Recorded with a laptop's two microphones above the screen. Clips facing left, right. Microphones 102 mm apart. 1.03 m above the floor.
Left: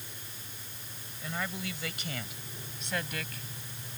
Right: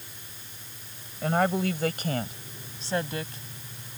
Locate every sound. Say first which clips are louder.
1.2 s a woman speaking: right 13 dB; 60° right (ahead or behind); by 3.4 s 25° right (ahead or behind)